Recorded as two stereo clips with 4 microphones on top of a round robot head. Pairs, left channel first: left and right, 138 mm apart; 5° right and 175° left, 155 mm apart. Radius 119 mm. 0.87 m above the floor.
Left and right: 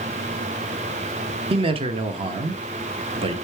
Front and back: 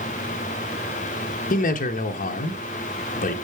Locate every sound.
1.5 s a man speaking: 40° right, 0.9 m